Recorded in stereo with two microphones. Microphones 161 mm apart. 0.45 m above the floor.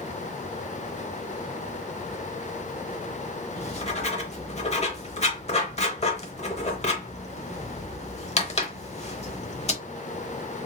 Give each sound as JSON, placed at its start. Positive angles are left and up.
{"t": 3.6, "sound": "writing", "side_deg": 40, "distance_m": 0.8}